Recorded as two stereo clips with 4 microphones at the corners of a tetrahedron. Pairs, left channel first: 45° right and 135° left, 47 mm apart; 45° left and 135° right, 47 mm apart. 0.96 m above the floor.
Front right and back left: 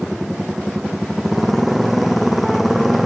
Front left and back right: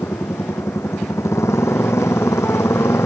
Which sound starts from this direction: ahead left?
A motorcycle, at 0.0 s.